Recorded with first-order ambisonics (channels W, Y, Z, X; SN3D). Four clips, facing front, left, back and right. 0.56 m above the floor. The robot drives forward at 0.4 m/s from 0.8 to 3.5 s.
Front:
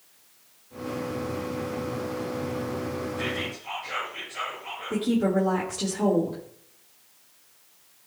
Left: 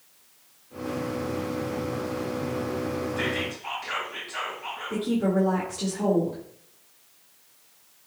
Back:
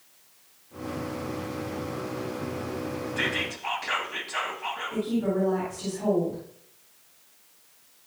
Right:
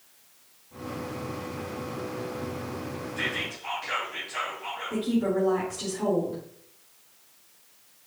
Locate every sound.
3.2 s whispering: straight behind, 3 m
4.9 s a woman speaking: 20° left, 1.9 m